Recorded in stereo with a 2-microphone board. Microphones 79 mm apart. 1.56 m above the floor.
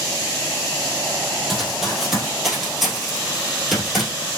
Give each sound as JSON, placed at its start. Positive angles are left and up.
{"t": 1.5, "sound": "running footsteps", "side_deg": 0, "distance_m": 1.8}